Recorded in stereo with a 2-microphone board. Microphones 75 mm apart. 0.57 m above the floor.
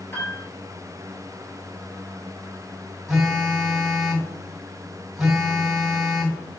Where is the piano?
35° left (ahead or behind), 4 m.